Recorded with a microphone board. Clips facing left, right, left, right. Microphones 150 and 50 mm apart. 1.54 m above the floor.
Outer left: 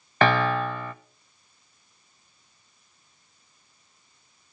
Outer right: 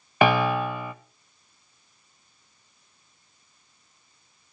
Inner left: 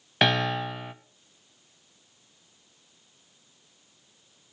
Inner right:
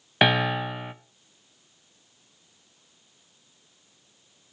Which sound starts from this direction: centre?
A piano, at 0.2 s.